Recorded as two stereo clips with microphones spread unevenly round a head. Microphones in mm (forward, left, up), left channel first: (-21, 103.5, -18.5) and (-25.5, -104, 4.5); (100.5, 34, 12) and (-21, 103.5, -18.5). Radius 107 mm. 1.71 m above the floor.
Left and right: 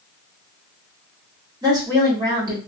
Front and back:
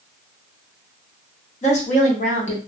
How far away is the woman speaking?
About 1.3 m.